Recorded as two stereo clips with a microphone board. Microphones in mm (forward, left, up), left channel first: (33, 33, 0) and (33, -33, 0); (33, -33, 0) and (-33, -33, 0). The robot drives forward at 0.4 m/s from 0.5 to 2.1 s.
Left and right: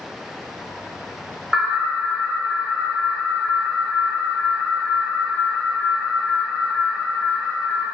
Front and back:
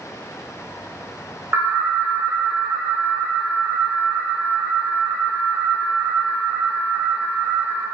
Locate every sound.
1.5 s an alarm: 155° right, 1.6 m; by 7.8 s 160° right, 1.7 m